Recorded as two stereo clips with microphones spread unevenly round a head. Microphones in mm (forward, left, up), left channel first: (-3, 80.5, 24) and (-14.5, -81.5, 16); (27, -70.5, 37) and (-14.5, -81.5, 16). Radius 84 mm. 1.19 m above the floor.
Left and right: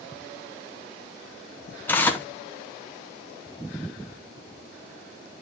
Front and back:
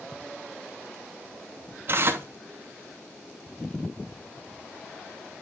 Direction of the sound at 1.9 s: 165° left.